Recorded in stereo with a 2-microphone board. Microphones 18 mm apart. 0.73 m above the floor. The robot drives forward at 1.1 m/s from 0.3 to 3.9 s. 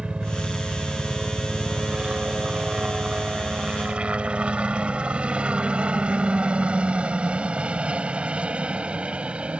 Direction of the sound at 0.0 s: 60° right (ahead or behind).